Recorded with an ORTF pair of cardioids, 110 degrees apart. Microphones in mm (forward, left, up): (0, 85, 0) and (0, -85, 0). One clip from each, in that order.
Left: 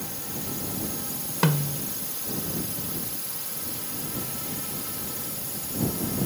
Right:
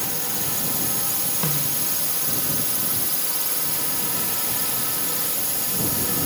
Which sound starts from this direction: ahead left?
A snare drum, at 1.4 s.